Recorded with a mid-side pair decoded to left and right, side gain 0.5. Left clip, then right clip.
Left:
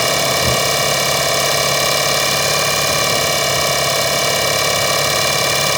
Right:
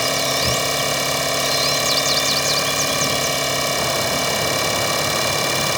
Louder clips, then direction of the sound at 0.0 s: Left 4 dB; 30° left.